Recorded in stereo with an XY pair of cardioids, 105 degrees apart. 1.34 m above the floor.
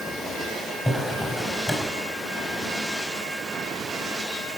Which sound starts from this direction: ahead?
A drawer, at 0.8 s.